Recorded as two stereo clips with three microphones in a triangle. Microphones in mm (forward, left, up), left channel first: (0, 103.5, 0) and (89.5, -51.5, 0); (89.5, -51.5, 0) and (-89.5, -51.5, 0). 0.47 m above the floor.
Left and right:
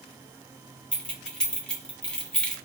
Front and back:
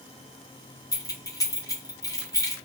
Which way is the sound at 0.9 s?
40° left.